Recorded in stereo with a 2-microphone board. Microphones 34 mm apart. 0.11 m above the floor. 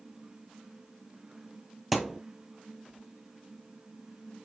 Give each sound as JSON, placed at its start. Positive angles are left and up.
{"t": 1.9, "sound": "a thud", "side_deg": -5, "distance_m": 0.9}